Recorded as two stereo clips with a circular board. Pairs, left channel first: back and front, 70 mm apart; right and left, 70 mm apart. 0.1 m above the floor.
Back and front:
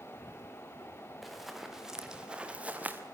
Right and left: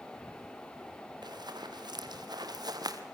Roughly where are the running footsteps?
Left.